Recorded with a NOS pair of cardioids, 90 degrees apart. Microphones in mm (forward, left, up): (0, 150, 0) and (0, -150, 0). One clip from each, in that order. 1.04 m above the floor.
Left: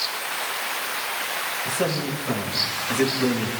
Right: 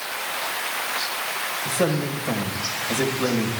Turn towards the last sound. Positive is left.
turn(degrees=-25)